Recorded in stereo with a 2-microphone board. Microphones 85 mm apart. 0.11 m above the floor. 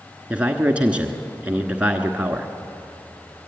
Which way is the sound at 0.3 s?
15° right (ahead or behind).